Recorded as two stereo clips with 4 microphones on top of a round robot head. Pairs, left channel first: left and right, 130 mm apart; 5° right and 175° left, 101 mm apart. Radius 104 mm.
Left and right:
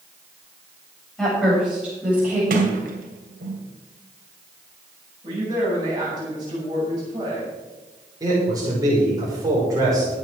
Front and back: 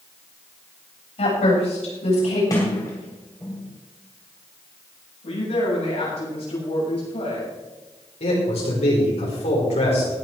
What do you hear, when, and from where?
1.2 s a woman speaking: straight ahead, 8 m; by 2.4 s 10° right, 8 m
2.5 s a sliding door: 75° right, 2.5 m
5.2 s a woman speaking: 30° right, 8 m
8.2 s a man speaking: 25° right, 5.5 m